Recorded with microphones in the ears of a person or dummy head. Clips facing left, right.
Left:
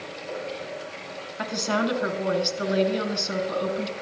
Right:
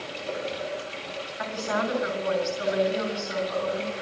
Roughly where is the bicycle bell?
No bicycle bell in this recording.